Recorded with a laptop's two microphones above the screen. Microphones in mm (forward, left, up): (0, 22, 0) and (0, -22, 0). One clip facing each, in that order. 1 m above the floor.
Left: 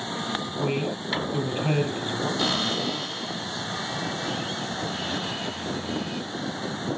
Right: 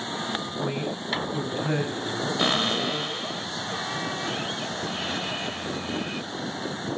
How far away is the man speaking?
About 7 m.